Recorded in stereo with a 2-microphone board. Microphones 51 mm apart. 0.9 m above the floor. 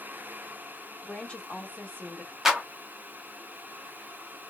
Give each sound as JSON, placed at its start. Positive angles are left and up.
{"t": 1.0, "sound": "a woman speaking", "side_deg": 15, "distance_m": 1.6}
{"t": 2.5, "sound": "a clap", "side_deg": -5, "distance_m": 1.1}